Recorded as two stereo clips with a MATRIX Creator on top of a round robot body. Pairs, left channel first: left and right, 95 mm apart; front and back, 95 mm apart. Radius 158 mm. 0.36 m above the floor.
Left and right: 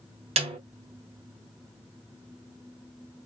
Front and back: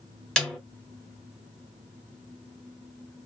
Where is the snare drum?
85° right, 1.1 m.